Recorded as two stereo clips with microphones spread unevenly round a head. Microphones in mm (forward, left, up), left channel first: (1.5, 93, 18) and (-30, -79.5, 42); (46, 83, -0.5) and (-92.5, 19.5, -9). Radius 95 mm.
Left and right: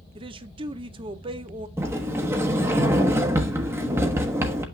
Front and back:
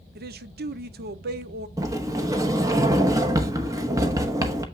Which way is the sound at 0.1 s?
155° right.